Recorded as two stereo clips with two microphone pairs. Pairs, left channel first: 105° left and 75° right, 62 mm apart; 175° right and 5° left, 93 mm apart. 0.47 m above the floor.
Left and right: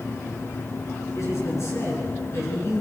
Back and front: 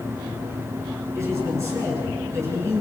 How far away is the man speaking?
About 7.5 m.